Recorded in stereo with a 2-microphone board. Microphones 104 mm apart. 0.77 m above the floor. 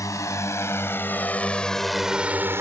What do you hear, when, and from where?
0.0 s a drone: 30° left (ahead or behind); by 2.6 s 25° right (ahead or behind)